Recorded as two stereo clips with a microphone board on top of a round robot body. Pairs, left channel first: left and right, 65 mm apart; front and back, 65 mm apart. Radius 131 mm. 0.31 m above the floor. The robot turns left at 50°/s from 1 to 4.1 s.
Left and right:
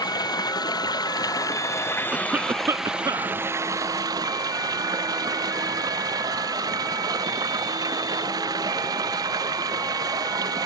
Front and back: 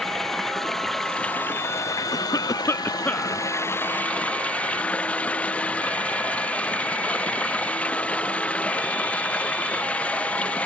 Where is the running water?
85° left; by 10.7 s 70° right.